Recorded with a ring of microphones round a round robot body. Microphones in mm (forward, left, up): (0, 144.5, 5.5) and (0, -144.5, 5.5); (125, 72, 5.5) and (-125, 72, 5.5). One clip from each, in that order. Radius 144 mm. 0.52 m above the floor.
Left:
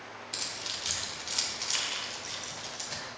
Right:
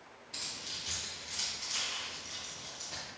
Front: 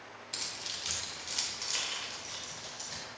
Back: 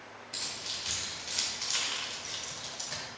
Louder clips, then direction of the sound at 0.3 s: Left 4 dB, back 1 dB; 45° left.